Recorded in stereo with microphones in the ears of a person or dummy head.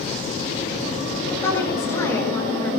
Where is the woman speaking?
20° left (ahead or behind), 3.5 m.